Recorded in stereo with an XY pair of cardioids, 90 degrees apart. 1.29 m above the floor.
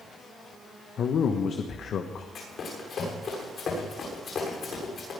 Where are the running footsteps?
60° left, 7.5 m.